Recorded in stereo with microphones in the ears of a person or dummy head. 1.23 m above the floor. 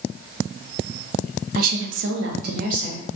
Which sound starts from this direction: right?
A woman speaking, at 1.6 s.